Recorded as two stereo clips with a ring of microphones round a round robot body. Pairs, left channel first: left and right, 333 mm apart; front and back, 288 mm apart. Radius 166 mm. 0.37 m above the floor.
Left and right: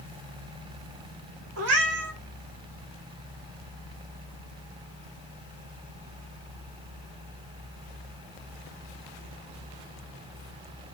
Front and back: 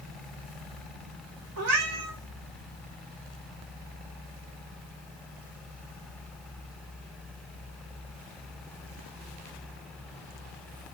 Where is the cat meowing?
135° right, 0.8 m.